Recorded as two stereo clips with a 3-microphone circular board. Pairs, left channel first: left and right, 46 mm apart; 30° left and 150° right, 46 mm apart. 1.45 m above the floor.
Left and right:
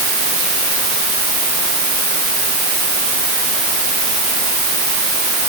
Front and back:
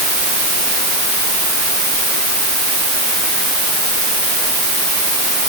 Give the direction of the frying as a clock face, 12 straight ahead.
I don't hear frying.